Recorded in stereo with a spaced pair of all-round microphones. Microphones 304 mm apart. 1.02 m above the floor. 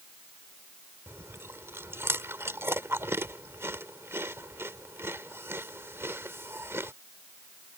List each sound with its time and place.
1.1 s chewing: 10° right (ahead or behind)